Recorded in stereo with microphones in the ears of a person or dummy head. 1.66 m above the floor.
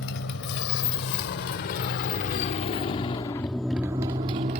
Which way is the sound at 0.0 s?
60° left (ahead or behind).